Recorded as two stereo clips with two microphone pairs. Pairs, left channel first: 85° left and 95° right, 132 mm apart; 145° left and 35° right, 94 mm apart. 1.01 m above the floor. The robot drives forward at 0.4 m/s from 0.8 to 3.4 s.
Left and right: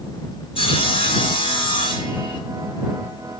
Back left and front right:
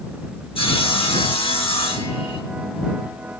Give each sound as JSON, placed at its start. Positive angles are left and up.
{"t": 0.6, "sound": "sawing", "azimuth_deg": 130, "distance_m": 4.5}